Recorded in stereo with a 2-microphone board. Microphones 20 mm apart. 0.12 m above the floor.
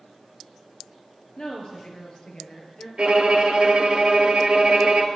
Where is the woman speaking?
40° left (ahead or behind), 1.9 m.